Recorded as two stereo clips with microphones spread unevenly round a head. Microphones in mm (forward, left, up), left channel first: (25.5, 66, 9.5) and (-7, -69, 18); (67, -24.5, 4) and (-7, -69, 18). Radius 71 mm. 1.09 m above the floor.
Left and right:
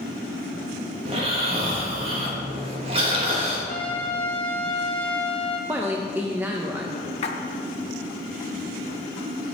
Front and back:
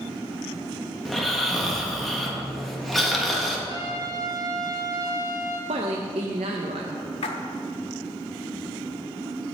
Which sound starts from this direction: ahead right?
Snoring, at 1.1 s.